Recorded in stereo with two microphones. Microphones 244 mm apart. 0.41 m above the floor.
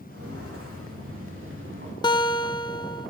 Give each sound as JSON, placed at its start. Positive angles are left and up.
{"t": 0.1, "sound": "footsteps", "side_deg": -70, "distance_m": 6.5}
{"t": 2.0, "sound": "a guitar", "side_deg": 20, "distance_m": 0.8}